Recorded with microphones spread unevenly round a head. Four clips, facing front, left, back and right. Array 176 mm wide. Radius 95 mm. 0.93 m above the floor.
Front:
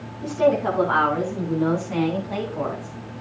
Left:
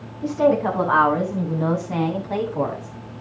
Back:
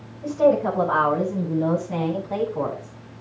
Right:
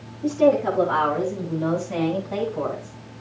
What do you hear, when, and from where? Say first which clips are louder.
0.2 s a woman speaking: even, back 1 dB; 70° left, 9 m; by 2.9 s 75° left, 7.5 m